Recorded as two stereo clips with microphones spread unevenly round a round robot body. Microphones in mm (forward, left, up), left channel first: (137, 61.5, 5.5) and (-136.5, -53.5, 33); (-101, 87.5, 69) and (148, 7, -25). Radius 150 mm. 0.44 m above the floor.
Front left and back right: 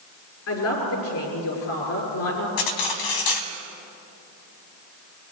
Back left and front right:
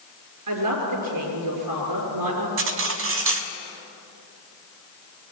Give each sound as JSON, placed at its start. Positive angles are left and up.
{"t": 0.5, "sound": "a man speaking", "azimuth_deg": -20, "distance_m": 6.5}
{"t": 2.6, "sound": "cutlery clinking", "azimuth_deg": 15, "distance_m": 1.8}